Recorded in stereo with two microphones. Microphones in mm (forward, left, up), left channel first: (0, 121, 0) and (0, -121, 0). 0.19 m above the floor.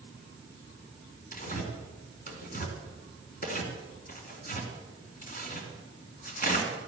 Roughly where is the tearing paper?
Left.